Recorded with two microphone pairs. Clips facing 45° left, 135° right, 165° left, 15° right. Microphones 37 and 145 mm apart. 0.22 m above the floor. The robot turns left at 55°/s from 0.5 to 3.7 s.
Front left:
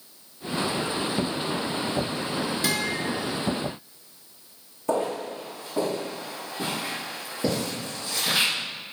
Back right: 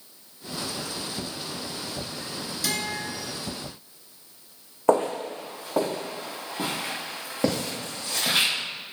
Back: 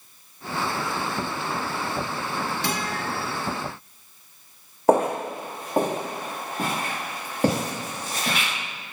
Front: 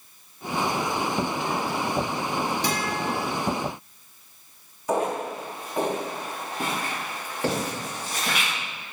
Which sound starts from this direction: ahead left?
A guitar, at 2.6 s.